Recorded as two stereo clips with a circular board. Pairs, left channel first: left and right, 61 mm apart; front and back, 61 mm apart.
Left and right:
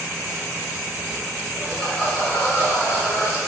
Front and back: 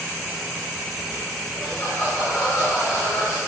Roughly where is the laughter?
Ahead.